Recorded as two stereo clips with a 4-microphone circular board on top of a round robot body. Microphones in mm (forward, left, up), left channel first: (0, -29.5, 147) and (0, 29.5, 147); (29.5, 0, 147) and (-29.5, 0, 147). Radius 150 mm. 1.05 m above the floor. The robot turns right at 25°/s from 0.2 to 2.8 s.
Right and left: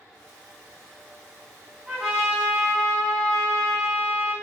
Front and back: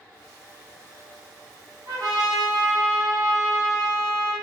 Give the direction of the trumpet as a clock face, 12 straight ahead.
7 o'clock.